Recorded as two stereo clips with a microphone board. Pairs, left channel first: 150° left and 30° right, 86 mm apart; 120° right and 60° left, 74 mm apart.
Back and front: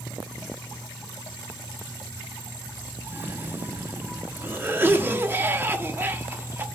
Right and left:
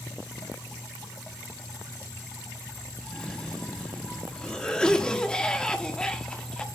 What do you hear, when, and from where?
3.0 s a cough: 55° right, 0.7 m